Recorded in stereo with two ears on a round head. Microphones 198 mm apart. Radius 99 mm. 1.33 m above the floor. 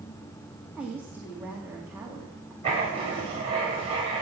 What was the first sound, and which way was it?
A woman speaking, 10° right (ahead or behind).